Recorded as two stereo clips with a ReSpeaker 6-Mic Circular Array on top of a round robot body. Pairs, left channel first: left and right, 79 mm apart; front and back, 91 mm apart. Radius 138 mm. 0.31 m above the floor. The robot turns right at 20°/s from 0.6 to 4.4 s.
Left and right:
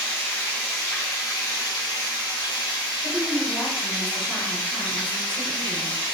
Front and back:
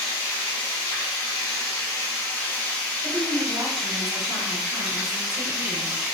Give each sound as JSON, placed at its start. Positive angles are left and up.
{"t": 0.0, "sound": "running water", "azimuth_deg": 30, "distance_m": 1.1}
{"t": 3.0, "sound": "a woman speaking", "azimuth_deg": -175, "distance_m": 1.4}